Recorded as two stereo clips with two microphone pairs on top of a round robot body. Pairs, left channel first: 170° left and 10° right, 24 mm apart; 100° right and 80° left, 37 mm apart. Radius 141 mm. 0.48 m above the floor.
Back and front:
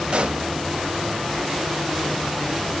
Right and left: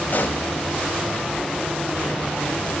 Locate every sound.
0.1 s a pop: 50° right, 1.0 m